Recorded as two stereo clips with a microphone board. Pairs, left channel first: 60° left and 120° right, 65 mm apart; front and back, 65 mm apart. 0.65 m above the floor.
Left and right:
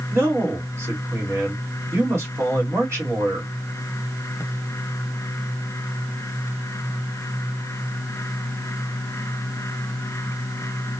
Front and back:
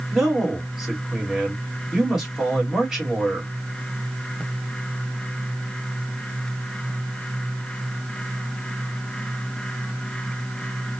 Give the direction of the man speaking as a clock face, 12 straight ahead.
3 o'clock.